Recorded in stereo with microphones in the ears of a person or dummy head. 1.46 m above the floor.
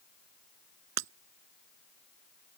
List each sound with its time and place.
1.0 s breaking glass: 85° right